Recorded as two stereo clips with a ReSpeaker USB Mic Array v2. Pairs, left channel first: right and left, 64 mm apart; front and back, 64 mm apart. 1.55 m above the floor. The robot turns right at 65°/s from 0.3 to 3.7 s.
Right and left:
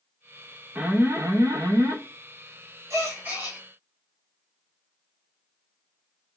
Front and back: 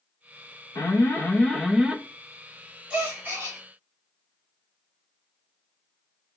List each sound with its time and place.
0.8 s an alarm: 25° left, 0.6 m; by 2.0 s 105° left, 0.6 m
2.9 s a gasp: 115° left, 1.5 m; by 3.6 s 155° left, 1.5 m